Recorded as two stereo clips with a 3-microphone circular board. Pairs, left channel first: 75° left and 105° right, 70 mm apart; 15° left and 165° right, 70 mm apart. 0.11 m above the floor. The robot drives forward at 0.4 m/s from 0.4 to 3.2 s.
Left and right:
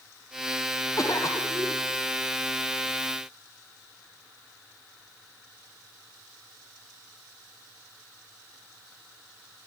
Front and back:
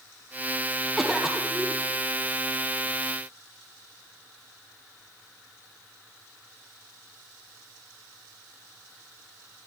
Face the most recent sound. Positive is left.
turn(degrees=120)